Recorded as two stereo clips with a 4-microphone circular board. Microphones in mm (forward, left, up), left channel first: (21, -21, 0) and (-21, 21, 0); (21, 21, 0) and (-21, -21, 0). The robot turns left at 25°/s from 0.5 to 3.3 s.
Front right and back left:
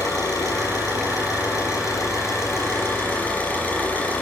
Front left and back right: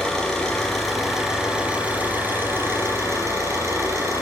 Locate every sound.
0.0 s an engine running: 35° right, 5 m; by 4.2 s 105° right, 5 m